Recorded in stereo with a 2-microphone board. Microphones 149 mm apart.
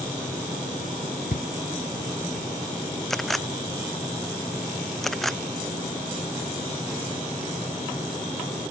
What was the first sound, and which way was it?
Footsteps, 65° left (ahead or behind).